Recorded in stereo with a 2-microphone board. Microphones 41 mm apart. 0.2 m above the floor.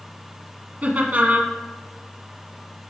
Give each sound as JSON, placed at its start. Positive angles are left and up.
{"t": 0.8, "sound": "laughter", "side_deg": -40, "distance_m": 1.4}